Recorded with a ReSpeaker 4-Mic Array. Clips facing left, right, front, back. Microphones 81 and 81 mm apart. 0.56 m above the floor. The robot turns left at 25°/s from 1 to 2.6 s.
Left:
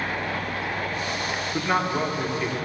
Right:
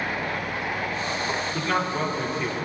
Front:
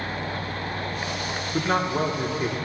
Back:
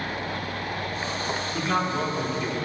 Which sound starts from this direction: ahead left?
A man speaking, at 1.5 s.